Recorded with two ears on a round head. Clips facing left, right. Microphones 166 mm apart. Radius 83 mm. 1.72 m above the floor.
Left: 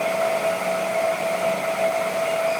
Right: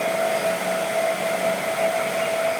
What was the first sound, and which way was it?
Only background noise.